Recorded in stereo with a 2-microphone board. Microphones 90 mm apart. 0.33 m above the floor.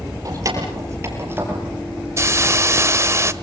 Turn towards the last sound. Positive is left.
turn(degrees=-35)  # may be behind; listen again after turning